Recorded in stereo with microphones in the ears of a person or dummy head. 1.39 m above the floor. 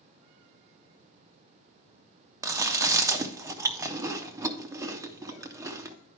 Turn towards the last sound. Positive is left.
turn(degrees=-20)  # may be behind; listen again after turning